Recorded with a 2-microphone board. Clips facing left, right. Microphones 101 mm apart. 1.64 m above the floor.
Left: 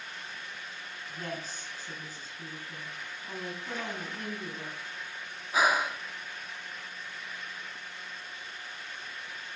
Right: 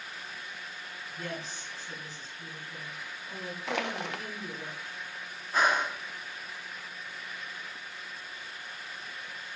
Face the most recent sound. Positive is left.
turn(degrees=5)  # may be behind; listen again after turning